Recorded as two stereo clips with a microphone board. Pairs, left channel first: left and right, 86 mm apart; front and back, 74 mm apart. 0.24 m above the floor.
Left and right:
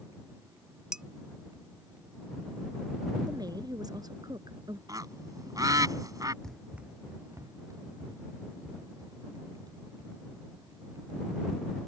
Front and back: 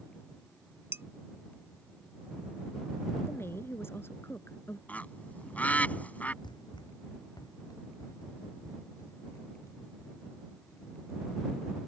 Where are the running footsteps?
5° left; by 11.8 s 55° right.